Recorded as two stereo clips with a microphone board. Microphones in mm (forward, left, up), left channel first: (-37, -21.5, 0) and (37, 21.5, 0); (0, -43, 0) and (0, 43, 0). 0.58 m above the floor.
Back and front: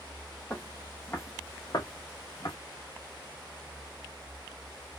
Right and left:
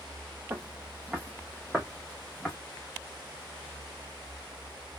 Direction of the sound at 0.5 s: 140° left.